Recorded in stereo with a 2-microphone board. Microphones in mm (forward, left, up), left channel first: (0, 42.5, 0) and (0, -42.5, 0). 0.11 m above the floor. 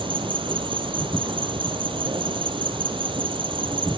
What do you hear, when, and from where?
0.0 s an insect: 70° right (ahead or behind), 1.3 m